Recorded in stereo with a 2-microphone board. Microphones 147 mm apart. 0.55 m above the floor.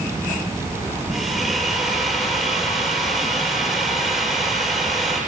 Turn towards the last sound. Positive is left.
turn(degrees=0)  # may be behind; listen again after turning